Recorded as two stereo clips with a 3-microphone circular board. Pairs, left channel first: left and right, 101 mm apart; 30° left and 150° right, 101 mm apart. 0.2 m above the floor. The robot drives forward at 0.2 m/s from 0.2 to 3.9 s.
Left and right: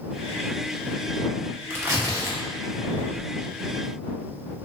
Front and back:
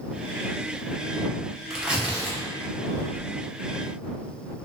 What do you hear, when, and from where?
1.7 s tearing paper: 75° right, 0.7 m; by 3.3 s 120° right, 0.7 m